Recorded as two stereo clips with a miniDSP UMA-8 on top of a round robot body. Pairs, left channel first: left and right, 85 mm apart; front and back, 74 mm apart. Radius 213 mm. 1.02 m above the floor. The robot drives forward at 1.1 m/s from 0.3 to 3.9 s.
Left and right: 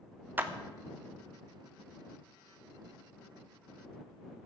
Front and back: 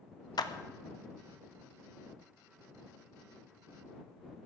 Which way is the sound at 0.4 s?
20° right.